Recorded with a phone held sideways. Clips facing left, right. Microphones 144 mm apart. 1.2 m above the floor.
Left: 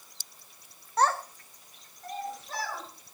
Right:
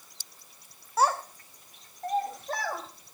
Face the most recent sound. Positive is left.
turn(degrees=-55)  # may be behind; listen again after turning